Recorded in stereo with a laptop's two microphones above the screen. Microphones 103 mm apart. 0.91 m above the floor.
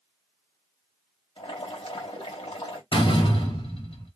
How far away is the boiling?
About 1.9 m.